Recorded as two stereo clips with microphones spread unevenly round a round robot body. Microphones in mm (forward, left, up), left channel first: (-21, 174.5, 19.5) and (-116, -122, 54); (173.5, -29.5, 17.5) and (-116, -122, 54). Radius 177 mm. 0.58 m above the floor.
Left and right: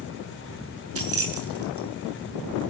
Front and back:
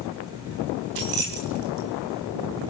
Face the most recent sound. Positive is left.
turn(degrees=-155)